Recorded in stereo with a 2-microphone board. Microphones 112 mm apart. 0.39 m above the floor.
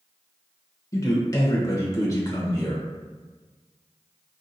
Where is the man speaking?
30° left (ahead or behind), 0.9 m.